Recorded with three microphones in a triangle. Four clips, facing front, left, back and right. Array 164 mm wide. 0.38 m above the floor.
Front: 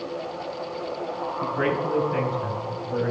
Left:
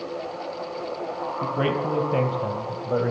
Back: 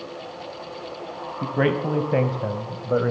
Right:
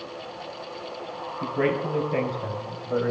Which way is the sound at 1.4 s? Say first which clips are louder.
Even, back 3 dB; 170° left.